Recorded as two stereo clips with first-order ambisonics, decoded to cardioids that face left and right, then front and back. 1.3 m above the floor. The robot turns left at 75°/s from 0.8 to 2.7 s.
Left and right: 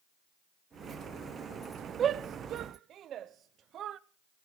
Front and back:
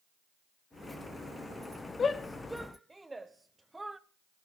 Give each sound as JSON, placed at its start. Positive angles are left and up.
{"t": 2.0, "sound": "a shout", "azimuth_deg": -50, "distance_m": 0.6}